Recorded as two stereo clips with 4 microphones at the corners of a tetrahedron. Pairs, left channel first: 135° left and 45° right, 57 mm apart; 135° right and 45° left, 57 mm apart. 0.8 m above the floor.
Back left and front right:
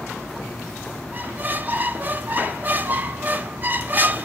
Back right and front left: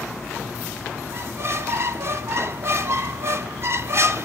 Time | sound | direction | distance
1.1 | a squeak | 10° left | 0.7 m